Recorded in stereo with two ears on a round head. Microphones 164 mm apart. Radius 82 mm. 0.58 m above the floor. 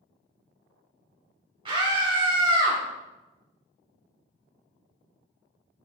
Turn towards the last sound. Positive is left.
turn(degrees=-15)  # may be behind; listen again after turning